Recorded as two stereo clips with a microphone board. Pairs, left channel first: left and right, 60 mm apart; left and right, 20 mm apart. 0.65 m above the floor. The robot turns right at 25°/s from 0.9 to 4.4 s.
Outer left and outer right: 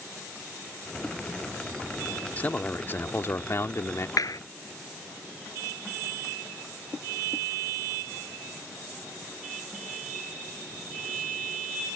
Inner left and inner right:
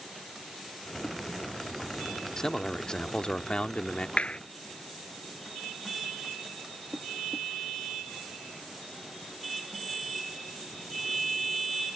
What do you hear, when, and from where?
2.4 s a man speaking: 35° left; by 4.1 s 80° left
4.2 s a clap: 85° left